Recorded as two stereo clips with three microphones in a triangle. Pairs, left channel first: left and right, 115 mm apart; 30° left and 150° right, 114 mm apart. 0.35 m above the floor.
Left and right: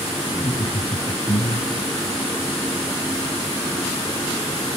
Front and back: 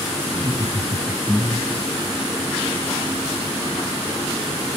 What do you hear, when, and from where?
0.3 s laughter: 155° left, 3 m; by 1.9 s 110° left, 2.5 m